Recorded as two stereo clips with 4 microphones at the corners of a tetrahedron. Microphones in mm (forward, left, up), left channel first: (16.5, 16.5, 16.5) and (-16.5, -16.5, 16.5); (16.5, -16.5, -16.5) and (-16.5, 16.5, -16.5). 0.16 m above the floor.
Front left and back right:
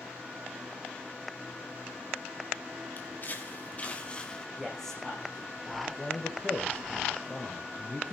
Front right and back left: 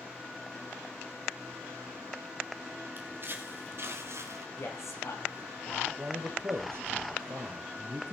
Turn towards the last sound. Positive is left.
turn(degrees=110)